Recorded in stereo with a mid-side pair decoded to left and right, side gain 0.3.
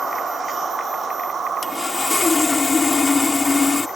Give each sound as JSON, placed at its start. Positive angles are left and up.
{"t": 1.6, "sound": "sawing", "azimuth_deg": 50}